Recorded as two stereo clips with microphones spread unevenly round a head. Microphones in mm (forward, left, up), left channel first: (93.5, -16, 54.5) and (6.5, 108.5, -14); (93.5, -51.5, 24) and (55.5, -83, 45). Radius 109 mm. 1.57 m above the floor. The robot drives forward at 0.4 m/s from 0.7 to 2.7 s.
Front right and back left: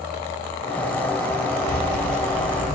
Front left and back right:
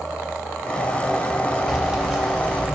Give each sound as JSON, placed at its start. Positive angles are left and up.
{"t": 1.7, "sound": "keys jangling", "azimuth_deg": -70, "distance_m": 1.8}